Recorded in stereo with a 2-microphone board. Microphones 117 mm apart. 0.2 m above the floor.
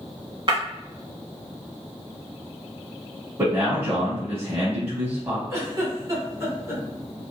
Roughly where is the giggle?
Right.